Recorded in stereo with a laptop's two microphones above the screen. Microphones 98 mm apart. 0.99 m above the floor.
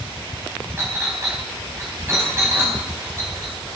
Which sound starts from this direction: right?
A clink, at 0.8 s.